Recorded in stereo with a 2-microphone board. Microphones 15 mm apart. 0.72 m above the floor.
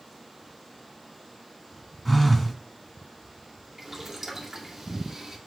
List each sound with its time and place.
2.0 s a phone buzzing: 5° left (ahead or behind), 1.6 m
3.8 s boiling: 25° right (ahead or behind), 2.0 m